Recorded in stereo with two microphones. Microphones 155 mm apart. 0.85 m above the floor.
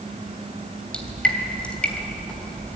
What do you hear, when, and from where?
0.9 s dripping: 10° left (ahead or behind), 3 m